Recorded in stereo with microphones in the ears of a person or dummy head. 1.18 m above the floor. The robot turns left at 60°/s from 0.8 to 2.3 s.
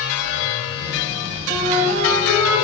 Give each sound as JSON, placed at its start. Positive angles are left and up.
{"t": 1.5, "sound": "a flute", "azimuth_deg": -25, "distance_m": 4.5}